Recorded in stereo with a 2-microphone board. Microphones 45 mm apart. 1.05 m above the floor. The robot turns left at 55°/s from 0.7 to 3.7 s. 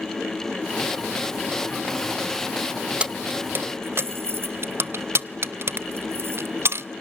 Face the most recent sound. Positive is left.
turn(degrees=-65)  # may be behind; listen again after turning